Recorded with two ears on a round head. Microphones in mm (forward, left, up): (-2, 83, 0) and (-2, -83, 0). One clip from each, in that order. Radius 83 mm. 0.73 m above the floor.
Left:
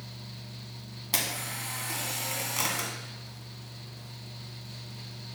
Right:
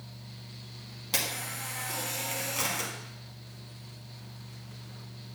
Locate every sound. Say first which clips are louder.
1.1 s a camera shutter: left 1 dB; 15° left (ahead or behind), 1.4 m